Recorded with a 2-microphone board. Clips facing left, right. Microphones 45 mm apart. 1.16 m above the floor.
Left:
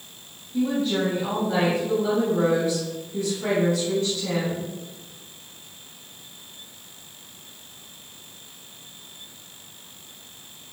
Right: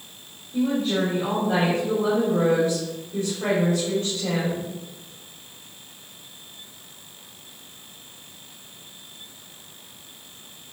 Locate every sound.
0.5 s a woman speaking: 75° right (ahead or behind), 3 m